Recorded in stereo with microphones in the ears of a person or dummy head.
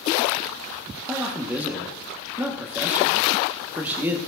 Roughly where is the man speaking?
Centre.